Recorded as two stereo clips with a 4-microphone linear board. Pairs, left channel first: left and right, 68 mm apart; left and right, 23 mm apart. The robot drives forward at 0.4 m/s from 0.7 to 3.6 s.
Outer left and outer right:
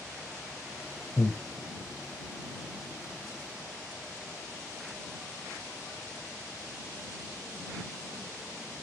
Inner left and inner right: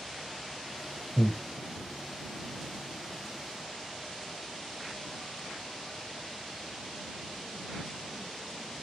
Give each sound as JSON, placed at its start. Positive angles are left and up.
{"t": 1.2, "sound": "breathing", "side_deg": 50, "distance_m": 1.0}